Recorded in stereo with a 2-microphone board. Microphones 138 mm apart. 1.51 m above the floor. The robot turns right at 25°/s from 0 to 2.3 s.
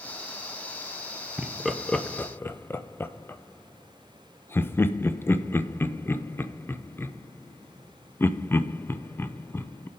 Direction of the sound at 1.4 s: 5° right (ahead or behind).